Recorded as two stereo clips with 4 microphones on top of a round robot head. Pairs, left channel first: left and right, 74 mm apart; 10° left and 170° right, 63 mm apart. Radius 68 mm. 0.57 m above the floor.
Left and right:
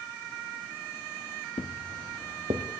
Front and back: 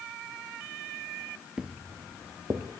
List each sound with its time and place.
1.6 s footsteps: 115° left, 0.7 m; by 2.6 s 115° right, 1.4 m